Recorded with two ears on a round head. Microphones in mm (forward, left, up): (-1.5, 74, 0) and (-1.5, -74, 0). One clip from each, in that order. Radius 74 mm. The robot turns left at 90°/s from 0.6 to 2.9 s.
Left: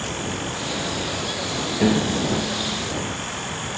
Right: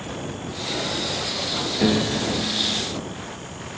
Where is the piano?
5° right; by 2.9 s 100° right.